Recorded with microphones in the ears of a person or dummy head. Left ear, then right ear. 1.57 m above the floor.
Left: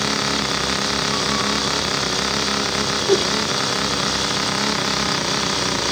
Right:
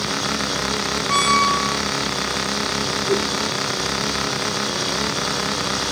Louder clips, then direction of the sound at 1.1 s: Right 4 dB; 45° right (ahead or behind).